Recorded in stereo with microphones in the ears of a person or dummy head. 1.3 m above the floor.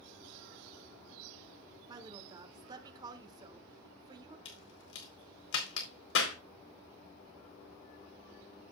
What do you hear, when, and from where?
1.9 s a woman speaking: 25° right (ahead or behind), 1.6 m
4.5 s a crack: 85° left, 4 m